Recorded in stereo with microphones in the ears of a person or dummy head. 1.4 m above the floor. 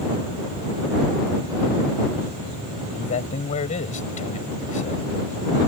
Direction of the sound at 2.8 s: 40° left (ahead or behind).